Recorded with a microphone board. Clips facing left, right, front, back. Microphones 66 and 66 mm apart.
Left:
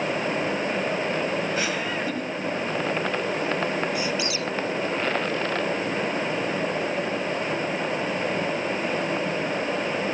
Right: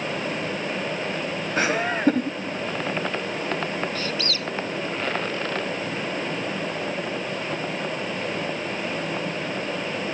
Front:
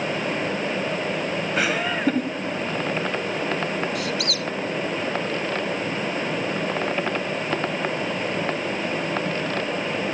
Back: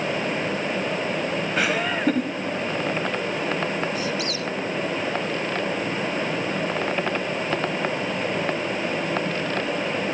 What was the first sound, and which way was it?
Laughter, 90° right.